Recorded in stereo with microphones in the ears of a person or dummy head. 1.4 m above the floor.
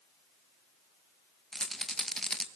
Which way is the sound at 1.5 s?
5° left (ahead or behind).